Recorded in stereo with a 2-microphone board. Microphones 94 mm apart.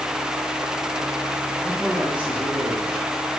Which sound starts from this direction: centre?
A man speaking, at 1.6 s.